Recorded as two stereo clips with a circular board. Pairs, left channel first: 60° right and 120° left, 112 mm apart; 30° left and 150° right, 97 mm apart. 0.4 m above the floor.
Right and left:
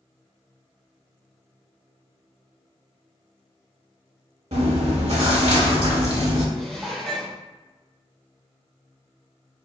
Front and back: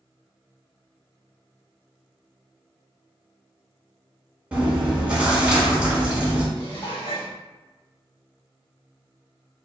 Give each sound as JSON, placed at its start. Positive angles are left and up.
{"t": 4.5, "sound": "chewing", "azimuth_deg": 135, "distance_m": 1.0}
{"t": 6.5, "sound": "dishes clattering", "azimuth_deg": 25, "distance_m": 1.2}